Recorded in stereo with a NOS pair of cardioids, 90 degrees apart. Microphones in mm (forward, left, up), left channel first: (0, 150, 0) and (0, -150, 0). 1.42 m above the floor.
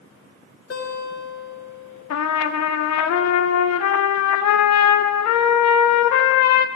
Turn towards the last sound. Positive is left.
turn(degrees=65)